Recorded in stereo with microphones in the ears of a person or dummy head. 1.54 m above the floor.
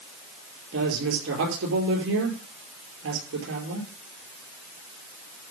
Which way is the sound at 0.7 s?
80° right.